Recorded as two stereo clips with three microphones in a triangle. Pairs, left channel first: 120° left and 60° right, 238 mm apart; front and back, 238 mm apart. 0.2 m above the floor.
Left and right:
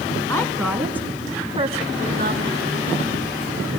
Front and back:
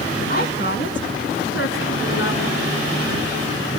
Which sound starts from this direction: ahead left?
A woman speaking, at 0.3 s.